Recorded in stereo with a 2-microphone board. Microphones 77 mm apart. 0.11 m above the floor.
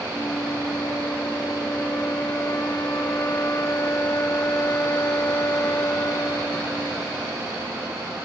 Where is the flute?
35° left (ahead or behind).